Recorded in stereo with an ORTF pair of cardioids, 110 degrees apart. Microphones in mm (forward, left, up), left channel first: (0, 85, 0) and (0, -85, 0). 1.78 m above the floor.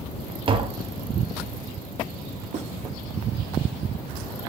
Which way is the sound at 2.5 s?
40° right.